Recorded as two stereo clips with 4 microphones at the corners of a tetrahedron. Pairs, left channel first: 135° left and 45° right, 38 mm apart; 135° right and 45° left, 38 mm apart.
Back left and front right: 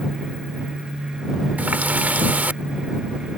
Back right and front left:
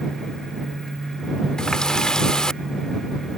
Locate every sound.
1.6 s a running tap: 70° right